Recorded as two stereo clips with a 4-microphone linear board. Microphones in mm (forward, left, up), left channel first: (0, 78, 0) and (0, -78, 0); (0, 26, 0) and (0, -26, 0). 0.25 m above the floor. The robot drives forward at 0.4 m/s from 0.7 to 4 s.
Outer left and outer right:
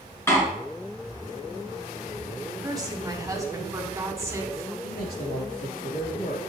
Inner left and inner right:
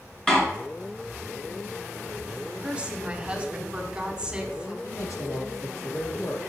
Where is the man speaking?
70° left (ahead or behind), 4 m.